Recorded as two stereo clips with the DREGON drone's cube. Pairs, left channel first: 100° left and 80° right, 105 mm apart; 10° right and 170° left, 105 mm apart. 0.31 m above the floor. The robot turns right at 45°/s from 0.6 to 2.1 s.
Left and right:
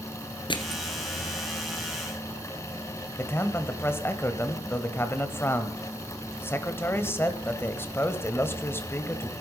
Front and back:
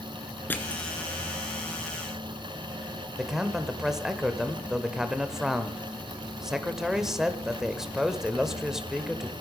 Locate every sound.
0.5 s crushing: 60° left, 1.5 m; by 1.0 s 80° left, 1.5 m
3.2 s a man speaking: 90° left, 1.1 m